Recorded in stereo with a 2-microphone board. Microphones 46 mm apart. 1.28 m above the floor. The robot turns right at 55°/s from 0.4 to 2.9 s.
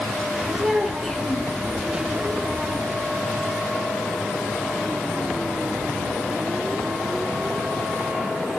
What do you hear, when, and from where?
0.6 s a child speaking: 15° right, 1.6 m; by 1.5 s 35° left, 1.6 m